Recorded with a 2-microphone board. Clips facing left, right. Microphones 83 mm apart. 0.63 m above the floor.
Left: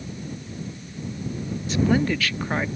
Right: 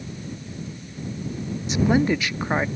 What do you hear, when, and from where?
1.7 s a woman speaking: 20° right (ahead or behind)